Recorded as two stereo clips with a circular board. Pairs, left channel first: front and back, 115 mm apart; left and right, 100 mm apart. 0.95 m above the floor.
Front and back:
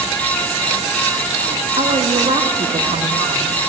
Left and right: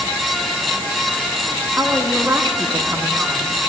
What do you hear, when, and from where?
1.8 s a woman speaking: 170° right, 1.0 m